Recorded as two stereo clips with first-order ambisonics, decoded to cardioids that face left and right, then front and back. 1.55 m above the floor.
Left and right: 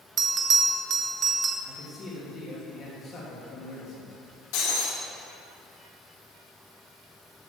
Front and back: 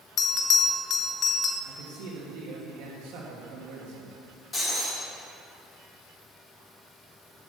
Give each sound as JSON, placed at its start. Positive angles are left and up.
{"t": 0.2, "sound": "a bell", "azimuth_deg": -45, "distance_m": 0.8}
{"t": 1.6, "sound": "a man speaking", "azimuth_deg": 155, "distance_m": 2.5}
{"t": 4.5, "sound": "breaking glass", "azimuth_deg": 70, "distance_m": 2.5}